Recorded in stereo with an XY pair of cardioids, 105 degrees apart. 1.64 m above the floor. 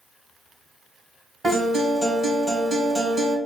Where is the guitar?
30° right, 1.0 m.